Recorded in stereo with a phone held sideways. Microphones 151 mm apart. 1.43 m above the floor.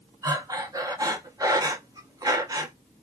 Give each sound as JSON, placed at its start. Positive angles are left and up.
{"t": 0.2, "sound": "breathing", "side_deg": -25, "distance_m": 0.6}